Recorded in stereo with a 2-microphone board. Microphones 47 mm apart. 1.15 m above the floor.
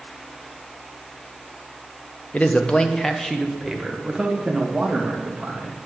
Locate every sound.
2.3 s a man speaking: 30° left (ahead or behind), 0.6 m; by 5.8 s 20° right (ahead or behind), 1.9 m